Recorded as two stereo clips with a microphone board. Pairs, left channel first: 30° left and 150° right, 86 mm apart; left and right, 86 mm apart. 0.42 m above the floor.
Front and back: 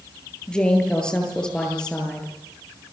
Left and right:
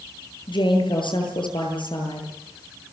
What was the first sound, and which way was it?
A woman speaking, 110° left.